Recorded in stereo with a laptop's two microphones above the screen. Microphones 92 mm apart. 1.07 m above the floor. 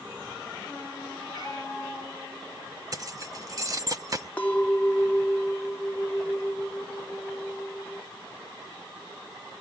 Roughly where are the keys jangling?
Right.